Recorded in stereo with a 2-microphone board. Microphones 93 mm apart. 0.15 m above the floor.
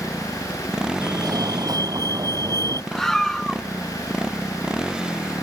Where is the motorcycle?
10° right (ahead or behind).